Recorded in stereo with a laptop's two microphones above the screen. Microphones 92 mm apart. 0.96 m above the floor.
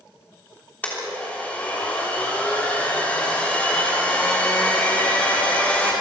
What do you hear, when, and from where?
0.8 s a blender: 15° left (ahead or behind), 3.5 m